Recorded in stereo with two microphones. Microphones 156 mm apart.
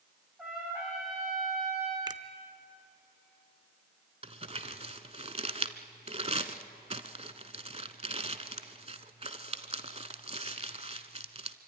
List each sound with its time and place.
0.4 s a trumpet: 5° right (ahead or behind), 7.5 m
2.1 s a finger snap: 25° right (ahead or behind), 0.6 m
4.2 s crumpling: 40° right (ahead or behind), 0.9 m